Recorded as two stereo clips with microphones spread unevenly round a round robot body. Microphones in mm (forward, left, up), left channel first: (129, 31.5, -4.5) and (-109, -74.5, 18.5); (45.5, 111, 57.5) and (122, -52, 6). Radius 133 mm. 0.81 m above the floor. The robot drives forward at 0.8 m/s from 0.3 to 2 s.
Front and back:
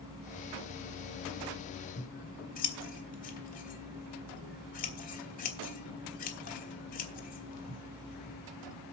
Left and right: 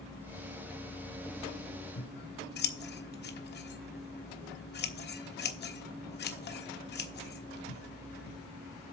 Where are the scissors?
85° left, 1.2 m.